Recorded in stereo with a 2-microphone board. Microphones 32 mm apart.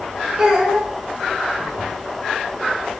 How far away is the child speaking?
About 0.7 m.